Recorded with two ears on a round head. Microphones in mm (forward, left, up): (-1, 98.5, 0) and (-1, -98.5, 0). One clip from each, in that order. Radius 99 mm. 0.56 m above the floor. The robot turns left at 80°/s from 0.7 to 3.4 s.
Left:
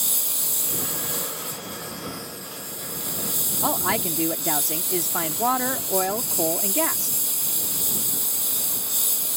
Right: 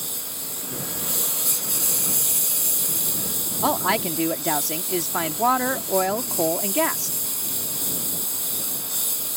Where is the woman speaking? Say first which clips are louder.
Right 3 dB; 10° right (ahead or behind).